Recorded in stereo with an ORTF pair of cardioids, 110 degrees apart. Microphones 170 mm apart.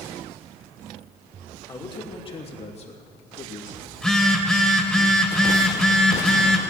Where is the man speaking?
25° left, 2.5 m; by 3.9 s 50° left, 3 m.